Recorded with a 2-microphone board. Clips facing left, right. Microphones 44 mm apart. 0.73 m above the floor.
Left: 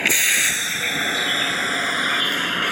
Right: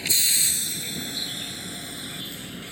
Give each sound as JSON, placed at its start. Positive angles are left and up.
{"t": 0.0, "sound": "a vehicle", "side_deg": 60}